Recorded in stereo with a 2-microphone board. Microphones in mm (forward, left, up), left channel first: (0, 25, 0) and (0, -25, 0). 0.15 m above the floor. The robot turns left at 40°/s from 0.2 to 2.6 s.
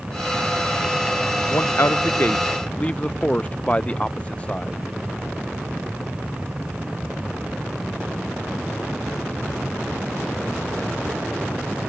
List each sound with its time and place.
1.5 s a man speaking: 65° left (ahead or behind); by 4.8 s 25° left (ahead or behind)